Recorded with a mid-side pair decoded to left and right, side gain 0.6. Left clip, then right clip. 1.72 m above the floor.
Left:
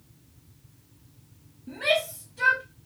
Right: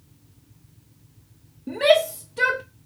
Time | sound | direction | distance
1.7 | a shout | 60° right | 0.7 m